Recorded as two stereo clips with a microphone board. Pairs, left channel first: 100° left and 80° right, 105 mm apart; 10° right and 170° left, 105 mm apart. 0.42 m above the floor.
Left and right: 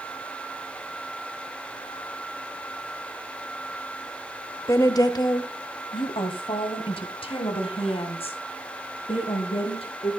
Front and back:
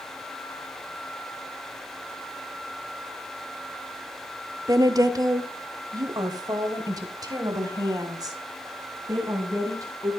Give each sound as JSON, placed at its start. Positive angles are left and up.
{"t": 4.7, "sound": "a woman speaking", "azimuth_deg": 135, "distance_m": 1.0}